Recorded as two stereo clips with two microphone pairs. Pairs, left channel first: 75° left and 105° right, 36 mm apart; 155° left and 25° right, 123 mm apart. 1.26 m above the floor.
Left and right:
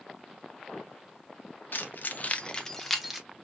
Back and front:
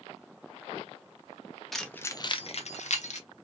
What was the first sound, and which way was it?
Keys jangling, 70° left.